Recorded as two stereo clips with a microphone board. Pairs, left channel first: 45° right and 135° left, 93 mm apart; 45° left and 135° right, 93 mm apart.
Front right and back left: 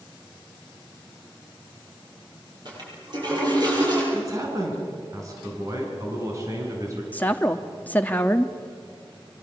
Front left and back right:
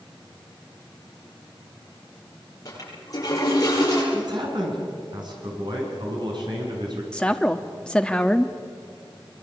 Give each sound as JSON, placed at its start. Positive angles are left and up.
{"t": 2.6, "sound": "a toilet flushing", "azimuth_deg": 95, "distance_m": 9.0}
{"t": 4.1, "sound": "a man speaking", "azimuth_deg": -170, "distance_m": 7.0}
{"t": 7.1, "sound": "a woman speaking", "azimuth_deg": -15, "distance_m": 0.9}